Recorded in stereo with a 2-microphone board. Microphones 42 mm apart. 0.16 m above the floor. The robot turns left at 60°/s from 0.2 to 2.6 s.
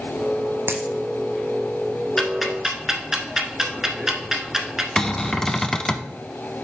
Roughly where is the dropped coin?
Right.